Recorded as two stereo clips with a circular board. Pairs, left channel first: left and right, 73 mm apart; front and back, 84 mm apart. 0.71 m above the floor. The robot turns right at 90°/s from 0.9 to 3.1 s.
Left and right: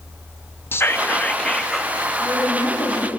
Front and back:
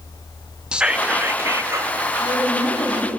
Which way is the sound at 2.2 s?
15° right.